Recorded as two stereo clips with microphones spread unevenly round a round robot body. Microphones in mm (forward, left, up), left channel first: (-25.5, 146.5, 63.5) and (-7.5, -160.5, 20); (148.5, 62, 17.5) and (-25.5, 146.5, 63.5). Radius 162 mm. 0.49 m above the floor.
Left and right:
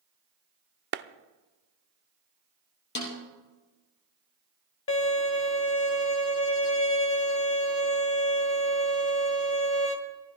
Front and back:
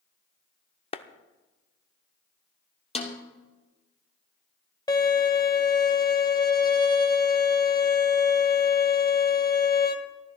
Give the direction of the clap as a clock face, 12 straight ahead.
2 o'clock.